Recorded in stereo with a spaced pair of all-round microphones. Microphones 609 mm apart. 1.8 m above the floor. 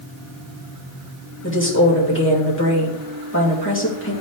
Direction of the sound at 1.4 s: 20° left (ahead or behind).